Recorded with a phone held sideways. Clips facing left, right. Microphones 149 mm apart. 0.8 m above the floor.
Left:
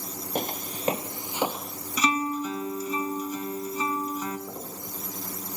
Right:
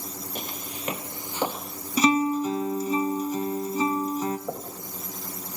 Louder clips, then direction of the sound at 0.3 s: Left 9 dB; 55° left (ahead or behind).